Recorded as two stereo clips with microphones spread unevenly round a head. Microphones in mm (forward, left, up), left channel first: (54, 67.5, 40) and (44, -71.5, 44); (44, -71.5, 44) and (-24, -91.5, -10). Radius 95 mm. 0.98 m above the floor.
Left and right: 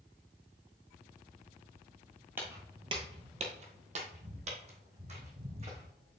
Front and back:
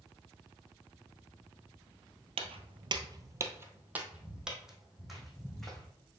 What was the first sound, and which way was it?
Footsteps, 165° right.